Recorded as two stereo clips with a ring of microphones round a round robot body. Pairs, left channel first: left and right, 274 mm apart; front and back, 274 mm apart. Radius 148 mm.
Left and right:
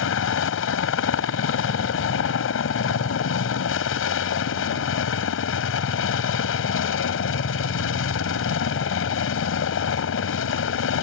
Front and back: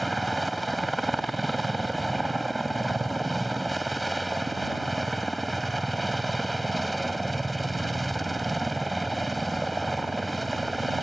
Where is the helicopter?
90° left.